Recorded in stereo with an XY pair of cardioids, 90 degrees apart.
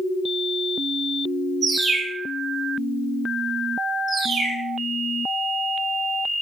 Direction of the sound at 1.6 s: 30° right.